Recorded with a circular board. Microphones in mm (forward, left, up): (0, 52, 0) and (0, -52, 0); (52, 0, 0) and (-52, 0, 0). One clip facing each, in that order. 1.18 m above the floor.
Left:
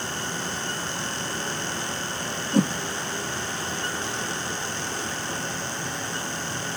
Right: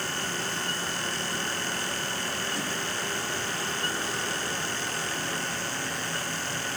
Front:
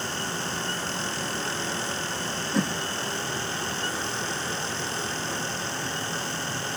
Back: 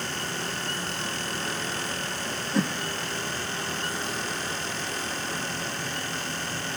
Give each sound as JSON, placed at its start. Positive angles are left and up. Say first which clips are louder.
{"t": 2.5, "sound": "a whoosh", "louder": "left 11 dB, even", "azimuth_deg": 90, "distance_m": 1.0}